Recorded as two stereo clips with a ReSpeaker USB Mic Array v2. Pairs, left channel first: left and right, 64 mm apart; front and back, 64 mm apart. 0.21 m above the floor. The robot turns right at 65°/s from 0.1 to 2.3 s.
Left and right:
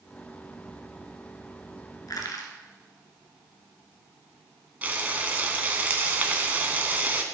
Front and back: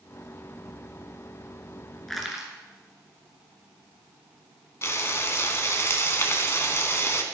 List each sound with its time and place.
2.1 s crushing: 85° left, 2.5 m; by 2.5 s 100° left, 2.5 m
4.8 s frying: 30° right, 1.5 m